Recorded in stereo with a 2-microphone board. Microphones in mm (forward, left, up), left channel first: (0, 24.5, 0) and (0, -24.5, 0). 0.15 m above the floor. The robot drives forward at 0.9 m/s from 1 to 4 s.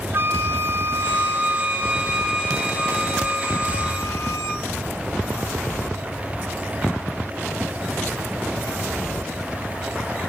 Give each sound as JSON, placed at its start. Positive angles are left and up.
{"t": 0.1, "sound": "a flute", "side_deg": -50, "distance_m": 0.6}